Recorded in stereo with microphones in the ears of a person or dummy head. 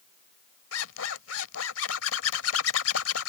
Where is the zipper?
85° left.